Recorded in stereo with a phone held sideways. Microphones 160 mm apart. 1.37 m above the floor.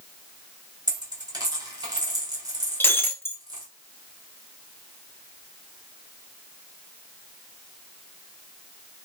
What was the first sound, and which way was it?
A dropped coin, 25° right (ahead or behind).